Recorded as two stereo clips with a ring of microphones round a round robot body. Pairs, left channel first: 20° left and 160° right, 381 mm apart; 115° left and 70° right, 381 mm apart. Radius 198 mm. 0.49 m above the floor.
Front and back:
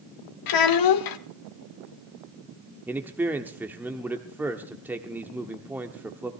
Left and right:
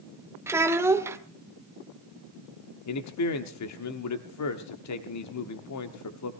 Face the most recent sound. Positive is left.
turn(degrees=120)